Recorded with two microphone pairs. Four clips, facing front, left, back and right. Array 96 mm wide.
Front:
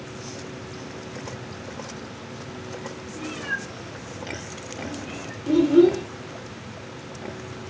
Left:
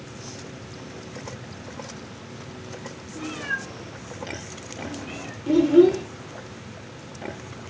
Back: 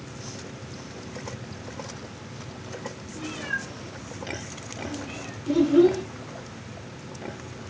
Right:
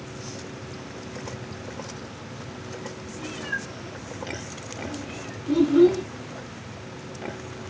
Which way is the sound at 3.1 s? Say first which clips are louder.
Left 3 dB, front 1 dB; 80° left.